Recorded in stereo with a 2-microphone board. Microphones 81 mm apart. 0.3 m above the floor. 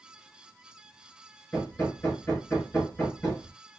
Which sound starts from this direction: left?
Hammering, at 1.5 s.